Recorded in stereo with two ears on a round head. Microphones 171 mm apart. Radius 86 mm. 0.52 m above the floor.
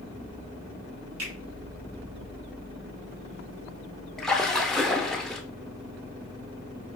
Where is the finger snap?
75° right (ahead or behind), 2.5 m.